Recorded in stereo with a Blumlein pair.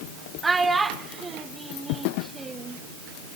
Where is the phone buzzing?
I don't hear a phone buzzing.